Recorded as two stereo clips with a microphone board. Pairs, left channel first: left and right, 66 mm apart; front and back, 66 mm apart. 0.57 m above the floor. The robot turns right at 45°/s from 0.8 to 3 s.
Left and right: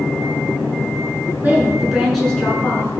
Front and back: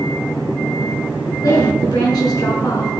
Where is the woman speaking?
25° right, 6.5 m; by 3.0 s 45° left, 6.5 m.